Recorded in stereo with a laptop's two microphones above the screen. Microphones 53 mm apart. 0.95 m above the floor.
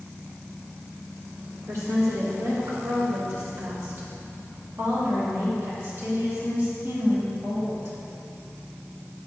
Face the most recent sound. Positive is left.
turn(degrees=-55)  # may be behind; listen again after turning